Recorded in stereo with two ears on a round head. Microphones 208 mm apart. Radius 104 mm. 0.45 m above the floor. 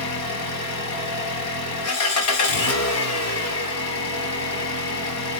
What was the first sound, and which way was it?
An engine running, 70° left (ahead or behind).